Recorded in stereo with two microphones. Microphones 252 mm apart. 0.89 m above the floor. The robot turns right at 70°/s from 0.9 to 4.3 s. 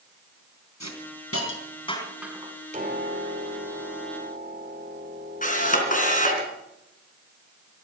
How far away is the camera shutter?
About 3.5 m.